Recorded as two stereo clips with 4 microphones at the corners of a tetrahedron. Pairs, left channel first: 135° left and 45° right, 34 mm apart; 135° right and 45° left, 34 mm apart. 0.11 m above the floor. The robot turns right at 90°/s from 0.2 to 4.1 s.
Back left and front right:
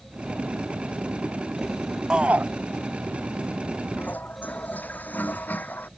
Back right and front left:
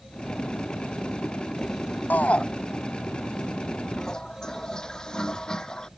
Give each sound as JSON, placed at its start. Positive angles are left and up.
{"t": 2.1, "sound": "a shout", "azimuth_deg": -110}
{"t": 4.0, "sound": "a toilet flushing", "azimuth_deg": 145}